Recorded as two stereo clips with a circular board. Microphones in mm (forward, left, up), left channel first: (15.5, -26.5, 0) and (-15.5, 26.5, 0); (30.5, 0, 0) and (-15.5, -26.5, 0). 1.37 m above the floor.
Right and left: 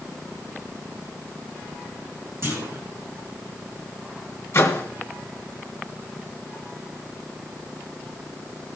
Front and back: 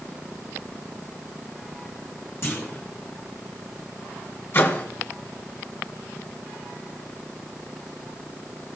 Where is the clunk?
70° left, 2.5 m.